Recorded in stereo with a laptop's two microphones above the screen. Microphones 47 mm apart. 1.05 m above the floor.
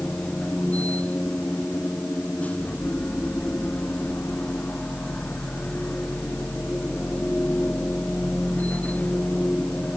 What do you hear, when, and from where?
0.0 s a machine running: 30° left (ahead or behind)